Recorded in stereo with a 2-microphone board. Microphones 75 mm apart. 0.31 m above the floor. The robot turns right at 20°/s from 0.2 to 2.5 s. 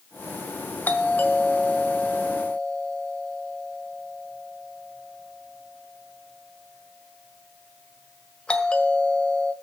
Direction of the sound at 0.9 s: 25° left (ahead or behind).